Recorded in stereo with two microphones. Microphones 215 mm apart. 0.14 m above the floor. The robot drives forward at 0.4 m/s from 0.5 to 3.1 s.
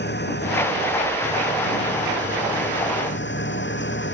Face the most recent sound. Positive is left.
turn(degrees=60)  # may be behind; listen again after turning